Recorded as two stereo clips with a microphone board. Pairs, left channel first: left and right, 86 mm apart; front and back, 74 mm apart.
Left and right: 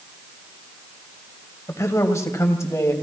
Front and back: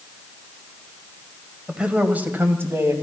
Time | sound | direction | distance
1.7 | a man speaking | 110° left | 1.5 m